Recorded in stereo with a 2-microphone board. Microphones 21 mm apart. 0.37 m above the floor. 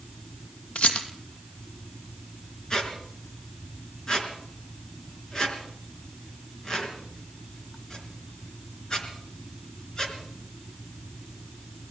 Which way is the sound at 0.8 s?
75° left (ahead or behind).